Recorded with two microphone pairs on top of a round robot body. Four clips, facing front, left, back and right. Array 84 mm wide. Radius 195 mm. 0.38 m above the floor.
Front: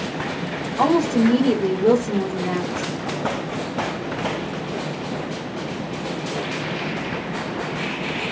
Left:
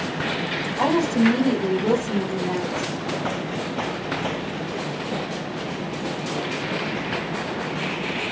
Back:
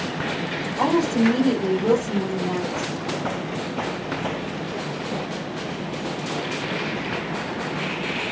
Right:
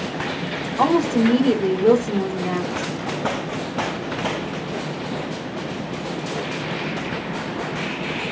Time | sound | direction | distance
0.8 | a woman speaking | 40° right | 1.4 m